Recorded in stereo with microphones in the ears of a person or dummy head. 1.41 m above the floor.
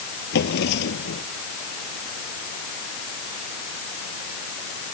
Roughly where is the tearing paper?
No tearing paper in this recording.